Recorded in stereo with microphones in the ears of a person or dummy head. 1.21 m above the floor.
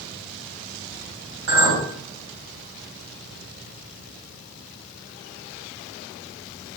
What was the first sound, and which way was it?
A clink, 85° right.